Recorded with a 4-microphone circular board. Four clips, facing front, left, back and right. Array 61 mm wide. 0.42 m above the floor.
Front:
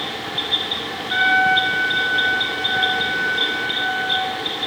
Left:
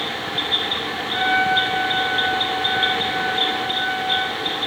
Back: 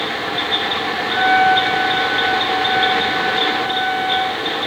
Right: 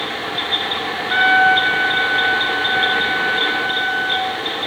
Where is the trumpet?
75° right, 5 m.